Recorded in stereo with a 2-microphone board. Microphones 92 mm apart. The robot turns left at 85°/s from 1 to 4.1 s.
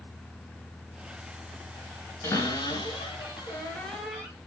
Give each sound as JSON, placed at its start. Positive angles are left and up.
{"t": 2.2, "sound": "a cupboard door", "azimuth_deg": 145, "distance_m": 3.5}